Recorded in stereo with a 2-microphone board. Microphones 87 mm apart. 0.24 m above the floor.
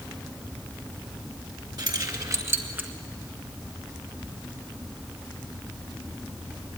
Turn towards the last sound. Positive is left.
turn(degrees=-15)  # may be behind; listen again after turning